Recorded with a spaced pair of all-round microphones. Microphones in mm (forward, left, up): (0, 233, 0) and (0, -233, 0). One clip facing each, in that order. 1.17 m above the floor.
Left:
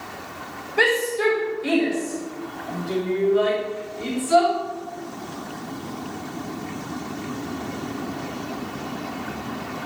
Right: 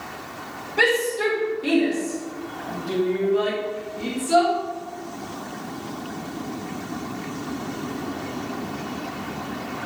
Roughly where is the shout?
Right.